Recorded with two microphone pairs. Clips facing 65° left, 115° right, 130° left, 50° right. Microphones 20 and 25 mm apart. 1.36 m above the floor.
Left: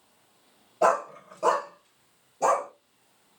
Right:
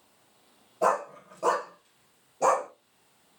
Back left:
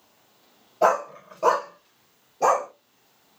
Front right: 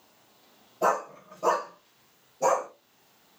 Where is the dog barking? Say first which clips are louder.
Left 3 dB, back left 5 dB; 115° left, 1.3 m; by 2.7 s 165° left, 1.9 m.